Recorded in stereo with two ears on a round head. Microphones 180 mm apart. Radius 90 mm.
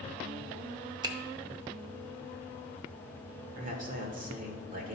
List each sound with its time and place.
1.0 s a finger snap: 25° right (ahead or behind), 0.8 m
3.5 s a man speaking: 45° right (ahead or behind), 1.8 m